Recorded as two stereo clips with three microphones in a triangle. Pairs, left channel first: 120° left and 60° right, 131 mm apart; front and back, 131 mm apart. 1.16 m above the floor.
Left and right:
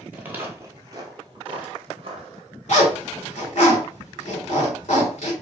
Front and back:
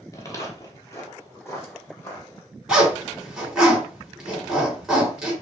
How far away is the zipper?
About 3 m.